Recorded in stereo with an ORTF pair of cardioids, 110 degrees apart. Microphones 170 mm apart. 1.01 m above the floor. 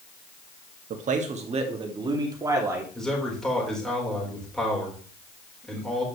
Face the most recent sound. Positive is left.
turn(degrees=5)